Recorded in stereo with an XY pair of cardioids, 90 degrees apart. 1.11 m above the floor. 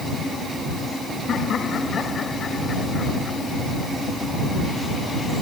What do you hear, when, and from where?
1.3 s laughter: 65° left; by 3.4 s 40° left